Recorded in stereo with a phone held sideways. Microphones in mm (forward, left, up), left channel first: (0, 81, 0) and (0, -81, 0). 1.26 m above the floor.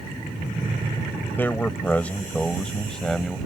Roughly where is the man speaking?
Centre.